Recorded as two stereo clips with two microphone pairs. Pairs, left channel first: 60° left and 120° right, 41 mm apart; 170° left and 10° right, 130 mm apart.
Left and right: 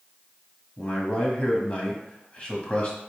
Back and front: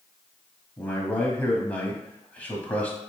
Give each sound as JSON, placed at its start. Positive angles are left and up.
{"t": 0.8, "sound": "a man speaking", "azimuth_deg": 100, "distance_m": 1.2}